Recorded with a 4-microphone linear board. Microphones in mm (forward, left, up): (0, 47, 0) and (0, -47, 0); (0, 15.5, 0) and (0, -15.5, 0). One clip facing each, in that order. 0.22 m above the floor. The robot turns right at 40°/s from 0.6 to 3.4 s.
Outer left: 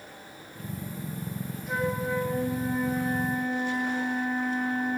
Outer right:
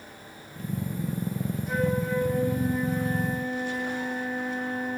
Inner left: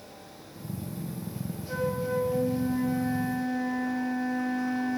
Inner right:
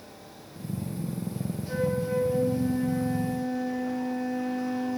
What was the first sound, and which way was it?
A flute, 5° right.